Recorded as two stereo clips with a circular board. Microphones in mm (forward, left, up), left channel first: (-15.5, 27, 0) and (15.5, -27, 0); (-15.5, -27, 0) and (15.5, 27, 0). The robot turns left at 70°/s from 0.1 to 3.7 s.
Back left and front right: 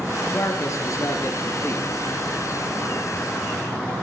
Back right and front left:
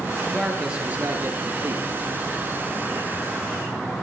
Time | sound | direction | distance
0.3 | a man speaking | 170° left | 3 m